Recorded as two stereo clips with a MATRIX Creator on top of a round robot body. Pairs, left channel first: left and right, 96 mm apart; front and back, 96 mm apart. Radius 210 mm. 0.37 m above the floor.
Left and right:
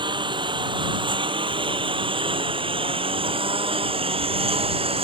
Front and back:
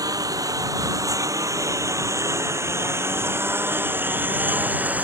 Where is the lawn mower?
125° right; by 5.0 s 105° right.